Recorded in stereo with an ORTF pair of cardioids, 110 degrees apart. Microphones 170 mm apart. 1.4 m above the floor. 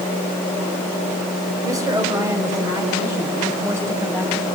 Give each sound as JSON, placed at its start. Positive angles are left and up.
{"t": 1.6, "sound": "a woman speaking", "azimuth_deg": -20, "distance_m": 6.0}